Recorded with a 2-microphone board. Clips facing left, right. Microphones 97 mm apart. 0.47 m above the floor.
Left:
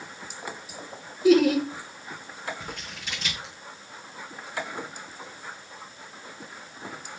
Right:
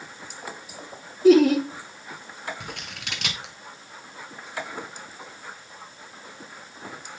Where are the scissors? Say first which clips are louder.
Even; 75° right (ahead or behind), 2.5 m.